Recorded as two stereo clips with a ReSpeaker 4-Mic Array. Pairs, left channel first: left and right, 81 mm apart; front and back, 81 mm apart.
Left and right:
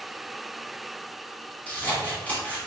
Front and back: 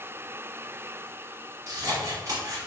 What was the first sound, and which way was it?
Scissors, 155° left.